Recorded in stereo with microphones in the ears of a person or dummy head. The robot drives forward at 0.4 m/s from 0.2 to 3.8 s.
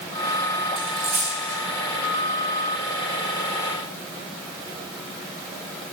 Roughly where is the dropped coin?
Right.